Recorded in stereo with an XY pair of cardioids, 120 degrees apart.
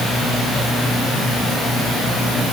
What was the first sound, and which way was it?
Only background noise.